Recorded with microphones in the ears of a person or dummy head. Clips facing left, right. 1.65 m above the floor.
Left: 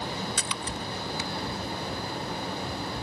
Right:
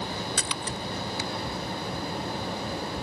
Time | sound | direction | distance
0.4 | a splash | 35° right (ahead or behind) | ?